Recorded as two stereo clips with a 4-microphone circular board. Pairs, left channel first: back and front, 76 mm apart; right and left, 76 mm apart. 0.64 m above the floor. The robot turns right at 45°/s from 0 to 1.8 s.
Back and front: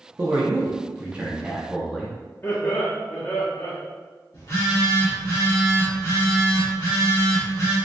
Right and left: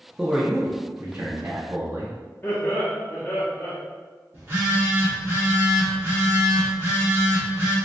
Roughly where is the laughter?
Behind right.